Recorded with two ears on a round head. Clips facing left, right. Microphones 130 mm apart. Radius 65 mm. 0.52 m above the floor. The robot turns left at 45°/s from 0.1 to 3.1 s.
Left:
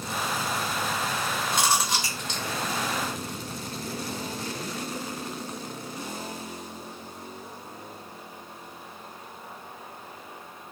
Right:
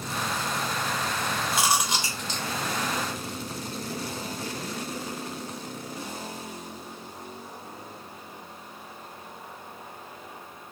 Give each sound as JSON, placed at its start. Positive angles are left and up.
{"t": 1.5, "sound": "chewing", "side_deg": 0, "distance_m": 0.9}